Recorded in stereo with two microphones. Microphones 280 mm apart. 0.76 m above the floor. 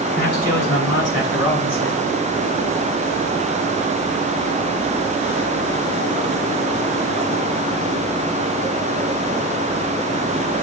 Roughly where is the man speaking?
Left.